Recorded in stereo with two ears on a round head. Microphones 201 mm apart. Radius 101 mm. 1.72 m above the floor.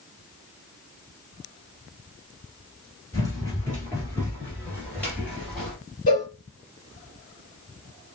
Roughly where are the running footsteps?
Centre.